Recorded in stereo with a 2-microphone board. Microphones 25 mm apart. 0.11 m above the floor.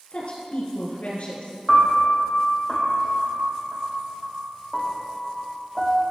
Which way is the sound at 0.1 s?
50° left (ahead or behind).